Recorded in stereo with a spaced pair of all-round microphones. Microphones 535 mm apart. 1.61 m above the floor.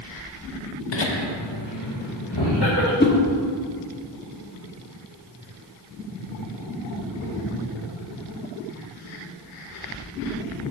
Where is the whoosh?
20° left (ahead or behind), 0.8 m.